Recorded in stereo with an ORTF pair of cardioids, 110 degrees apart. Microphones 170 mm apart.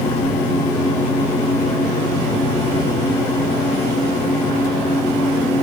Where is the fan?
20° left, 2.0 m.